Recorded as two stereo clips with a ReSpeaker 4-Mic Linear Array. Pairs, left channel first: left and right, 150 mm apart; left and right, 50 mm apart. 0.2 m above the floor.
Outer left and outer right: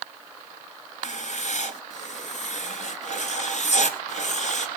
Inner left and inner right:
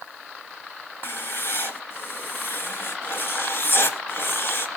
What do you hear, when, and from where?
1.0 s writing: 50° left (ahead or behind), 2 m